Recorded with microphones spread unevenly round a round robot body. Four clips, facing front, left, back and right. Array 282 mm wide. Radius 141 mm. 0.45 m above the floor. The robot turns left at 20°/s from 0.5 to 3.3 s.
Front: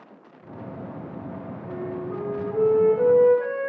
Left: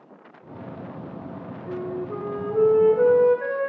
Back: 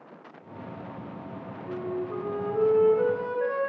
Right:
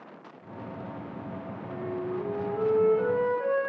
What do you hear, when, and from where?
1.7 s a flute: 95° left, 7 m; by 3.6 s 60° left, 7 m